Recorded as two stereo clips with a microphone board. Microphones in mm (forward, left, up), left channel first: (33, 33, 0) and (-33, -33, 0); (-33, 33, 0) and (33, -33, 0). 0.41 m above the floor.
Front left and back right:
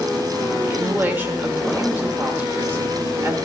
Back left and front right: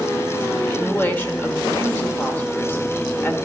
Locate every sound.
0.6 s a woman speaking: straight behind, 1.2 m